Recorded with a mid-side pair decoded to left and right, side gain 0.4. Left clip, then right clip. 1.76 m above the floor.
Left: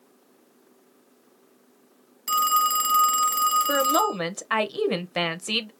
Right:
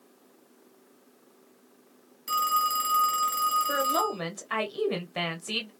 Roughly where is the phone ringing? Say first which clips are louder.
Left 4 dB; ahead left.